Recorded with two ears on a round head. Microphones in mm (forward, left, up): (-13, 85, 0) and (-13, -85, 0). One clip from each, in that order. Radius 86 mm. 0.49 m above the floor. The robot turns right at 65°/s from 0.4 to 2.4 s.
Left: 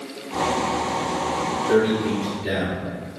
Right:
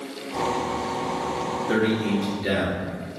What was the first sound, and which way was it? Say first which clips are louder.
A man speaking: left 4 dB; 125° right.